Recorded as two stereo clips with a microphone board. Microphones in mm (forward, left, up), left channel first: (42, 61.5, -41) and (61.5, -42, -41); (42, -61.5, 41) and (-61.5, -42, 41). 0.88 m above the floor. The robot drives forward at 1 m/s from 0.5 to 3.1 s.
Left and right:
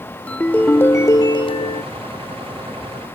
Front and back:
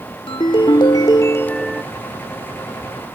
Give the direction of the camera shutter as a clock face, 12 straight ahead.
No camera shutter in this recording.